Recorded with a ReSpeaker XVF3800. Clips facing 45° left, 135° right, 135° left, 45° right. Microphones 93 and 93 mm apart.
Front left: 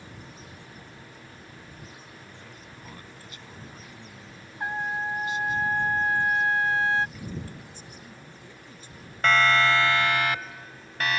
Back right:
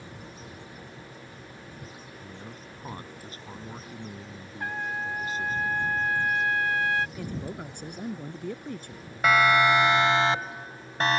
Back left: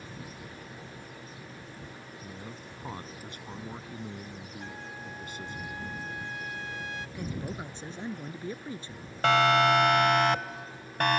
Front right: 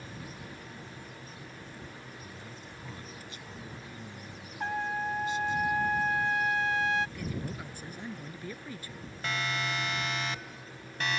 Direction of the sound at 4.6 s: 20° right.